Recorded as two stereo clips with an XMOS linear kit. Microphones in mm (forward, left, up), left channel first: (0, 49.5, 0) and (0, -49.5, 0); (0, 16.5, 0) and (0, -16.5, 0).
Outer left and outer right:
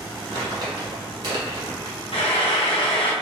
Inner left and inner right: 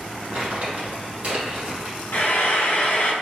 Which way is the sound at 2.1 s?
90° left.